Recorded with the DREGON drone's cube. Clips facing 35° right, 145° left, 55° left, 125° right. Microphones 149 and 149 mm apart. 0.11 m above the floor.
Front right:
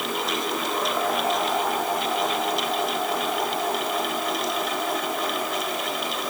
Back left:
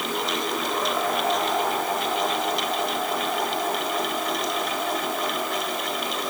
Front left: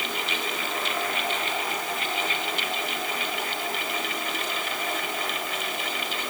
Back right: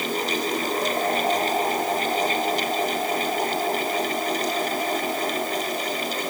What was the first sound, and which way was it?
Only background noise.